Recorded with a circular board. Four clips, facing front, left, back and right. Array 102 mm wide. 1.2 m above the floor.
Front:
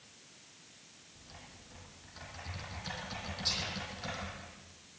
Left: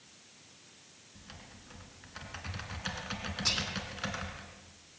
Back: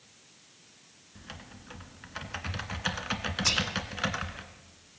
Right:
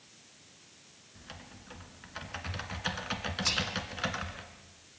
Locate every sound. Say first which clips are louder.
1.1 s typing on a keyboard: right 3 dB, back 8 dB; 165° right, 2 m
3.5 s whispering: right 2 dB, back 10 dB; 175° left, 2 m